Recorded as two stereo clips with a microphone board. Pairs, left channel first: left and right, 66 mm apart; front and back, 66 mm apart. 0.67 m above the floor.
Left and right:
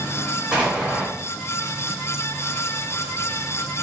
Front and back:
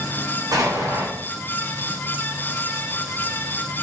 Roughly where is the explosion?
Behind.